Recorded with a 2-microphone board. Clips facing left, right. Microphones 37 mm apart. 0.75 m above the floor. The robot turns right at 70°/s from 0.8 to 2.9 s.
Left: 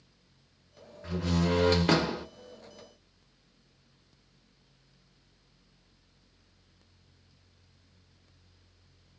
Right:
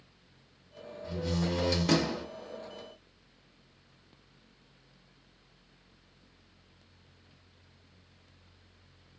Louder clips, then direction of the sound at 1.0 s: Left 4 dB; 85° left.